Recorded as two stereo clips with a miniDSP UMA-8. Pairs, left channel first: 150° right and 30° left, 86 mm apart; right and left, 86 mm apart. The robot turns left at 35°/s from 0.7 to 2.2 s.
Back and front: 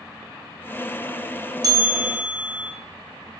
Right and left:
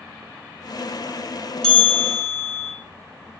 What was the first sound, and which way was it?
A bell, 10° right.